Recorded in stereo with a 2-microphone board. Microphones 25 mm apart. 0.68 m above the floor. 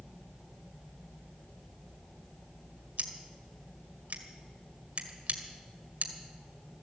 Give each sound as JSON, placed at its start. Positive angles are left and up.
{"t": 3.0, "sound": "scissors", "side_deg": -65, "distance_m": 1.7}